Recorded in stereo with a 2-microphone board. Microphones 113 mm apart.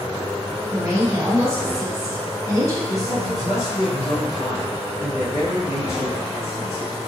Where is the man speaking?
55° left (ahead or behind), 1.3 m.